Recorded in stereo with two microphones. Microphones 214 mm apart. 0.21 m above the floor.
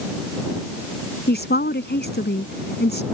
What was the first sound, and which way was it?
A woman speaking, 55° left (ahead or behind).